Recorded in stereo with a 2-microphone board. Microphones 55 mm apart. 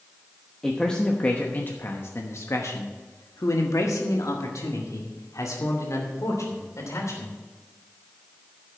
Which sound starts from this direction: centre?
A man speaking, at 0.6 s.